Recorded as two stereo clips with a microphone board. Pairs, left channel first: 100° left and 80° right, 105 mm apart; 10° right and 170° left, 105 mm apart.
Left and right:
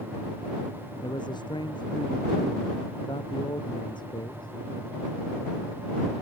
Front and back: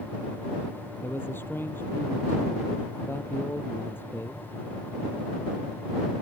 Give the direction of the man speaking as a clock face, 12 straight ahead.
10 o'clock.